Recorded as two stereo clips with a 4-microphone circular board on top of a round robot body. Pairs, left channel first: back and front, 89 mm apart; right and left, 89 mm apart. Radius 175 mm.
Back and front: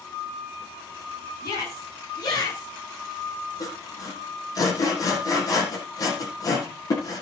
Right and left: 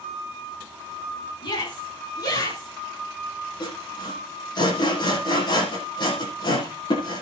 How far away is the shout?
About 9.5 m.